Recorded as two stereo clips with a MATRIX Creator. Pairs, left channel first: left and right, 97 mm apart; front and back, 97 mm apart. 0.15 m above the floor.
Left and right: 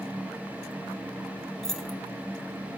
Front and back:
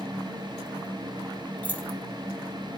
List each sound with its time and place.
1.6 s keys jangling: 15° left, 0.8 m